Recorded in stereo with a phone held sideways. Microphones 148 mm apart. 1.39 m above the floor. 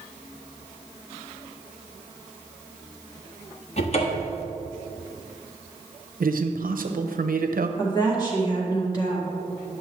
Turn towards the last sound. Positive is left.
turn(degrees=30)  # may be behind; listen again after turning